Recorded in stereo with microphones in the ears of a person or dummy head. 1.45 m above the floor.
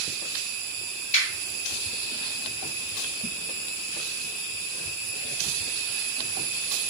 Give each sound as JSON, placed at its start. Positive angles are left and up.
{"t": 1.1, "sound": "a finger snap", "side_deg": 40, "distance_m": 1.9}